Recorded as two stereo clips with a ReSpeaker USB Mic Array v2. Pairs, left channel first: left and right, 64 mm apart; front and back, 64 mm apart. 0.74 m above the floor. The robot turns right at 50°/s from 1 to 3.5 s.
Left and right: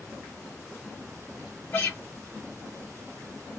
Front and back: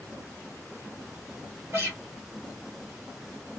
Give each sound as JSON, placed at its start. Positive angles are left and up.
{"t": 1.7, "sound": "a guitar", "azimuth_deg": 135, "distance_m": 1.5}